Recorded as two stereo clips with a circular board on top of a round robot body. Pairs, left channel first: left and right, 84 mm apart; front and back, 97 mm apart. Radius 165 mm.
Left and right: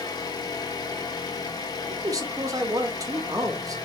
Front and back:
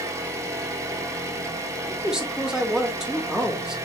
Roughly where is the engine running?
Behind left.